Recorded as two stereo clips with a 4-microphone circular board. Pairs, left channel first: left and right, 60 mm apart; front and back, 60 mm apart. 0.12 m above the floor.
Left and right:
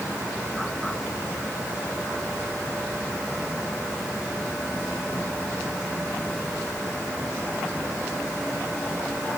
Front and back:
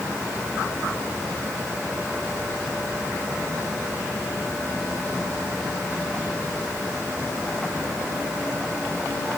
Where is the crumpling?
No crumpling in this recording.